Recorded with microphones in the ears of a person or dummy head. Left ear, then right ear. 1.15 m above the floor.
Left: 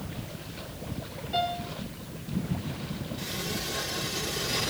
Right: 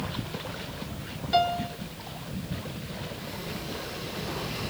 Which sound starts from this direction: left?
A sliding door, at 3.2 s.